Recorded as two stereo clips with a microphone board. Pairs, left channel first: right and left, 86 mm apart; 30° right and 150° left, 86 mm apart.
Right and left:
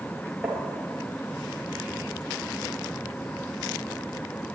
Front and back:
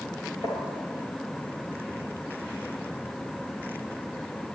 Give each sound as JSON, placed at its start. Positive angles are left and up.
{"t": 0.4, "sound": "tapping", "azimuth_deg": 5, "distance_m": 4.0}